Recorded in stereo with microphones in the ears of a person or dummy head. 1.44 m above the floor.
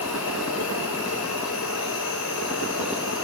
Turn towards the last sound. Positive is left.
turn(degrees=85)